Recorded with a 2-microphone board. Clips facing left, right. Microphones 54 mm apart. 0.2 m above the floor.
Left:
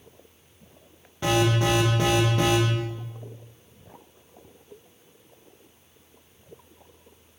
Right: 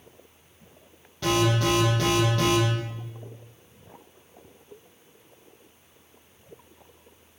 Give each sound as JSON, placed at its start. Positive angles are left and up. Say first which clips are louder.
{"t": 1.2, "sound": "an alarm", "louder": "left 1 dB", "side_deg": 20, "distance_m": 6.0}